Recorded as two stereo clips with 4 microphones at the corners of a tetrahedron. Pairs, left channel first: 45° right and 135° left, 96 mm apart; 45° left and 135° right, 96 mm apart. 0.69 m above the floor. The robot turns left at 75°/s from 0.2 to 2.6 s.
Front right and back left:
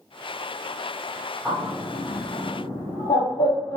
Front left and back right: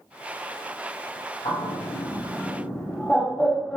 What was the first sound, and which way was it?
A bird, 45° left.